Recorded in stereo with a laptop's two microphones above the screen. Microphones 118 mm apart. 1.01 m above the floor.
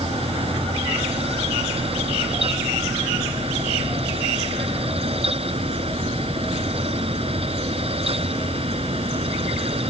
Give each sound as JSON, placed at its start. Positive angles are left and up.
{"t": 0.0, "sound": "a fan", "side_deg": -55}